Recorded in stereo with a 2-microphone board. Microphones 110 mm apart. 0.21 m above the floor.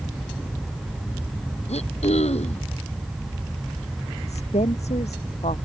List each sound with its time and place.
1.7 s throat clearing: 75° left (ahead or behind)
4.3 s a woman speaking: 80° left